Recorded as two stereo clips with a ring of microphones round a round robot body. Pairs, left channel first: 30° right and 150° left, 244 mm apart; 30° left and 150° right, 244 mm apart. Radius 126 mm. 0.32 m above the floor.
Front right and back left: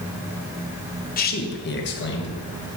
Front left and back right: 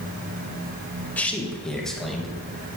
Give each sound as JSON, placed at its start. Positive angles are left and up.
{"t": 1.2, "sound": "a man speaking", "azimuth_deg": -50, "distance_m": 1.1}